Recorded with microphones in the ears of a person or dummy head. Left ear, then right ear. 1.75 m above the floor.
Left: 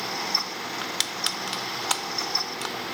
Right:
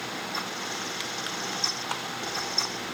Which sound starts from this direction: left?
Crushing, at 0.8 s.